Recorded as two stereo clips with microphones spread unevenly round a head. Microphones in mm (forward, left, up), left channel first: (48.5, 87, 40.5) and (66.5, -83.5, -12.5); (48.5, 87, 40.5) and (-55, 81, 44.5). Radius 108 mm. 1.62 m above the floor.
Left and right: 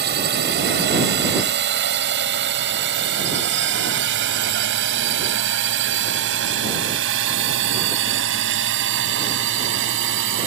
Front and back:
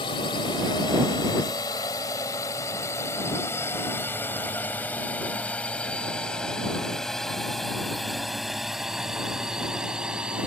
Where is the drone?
60° right; by 10.5 s 90° right.